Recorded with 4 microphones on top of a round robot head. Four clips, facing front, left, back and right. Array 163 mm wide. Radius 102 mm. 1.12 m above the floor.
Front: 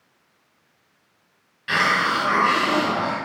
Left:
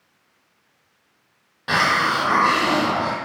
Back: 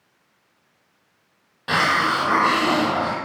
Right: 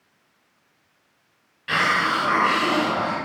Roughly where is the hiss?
Behind left.